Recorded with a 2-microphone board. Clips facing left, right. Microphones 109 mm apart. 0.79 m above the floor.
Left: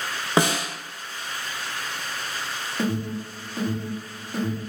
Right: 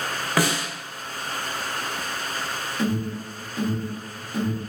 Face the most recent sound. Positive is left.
turn(degrees=30)  # may be behind; listen again after turning